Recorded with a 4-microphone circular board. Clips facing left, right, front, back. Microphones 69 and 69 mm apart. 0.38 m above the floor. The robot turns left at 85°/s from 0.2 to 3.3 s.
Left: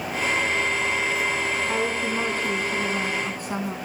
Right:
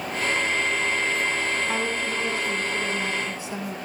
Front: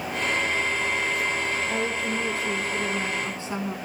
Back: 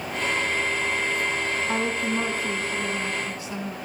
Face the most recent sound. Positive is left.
turn(degrees=55)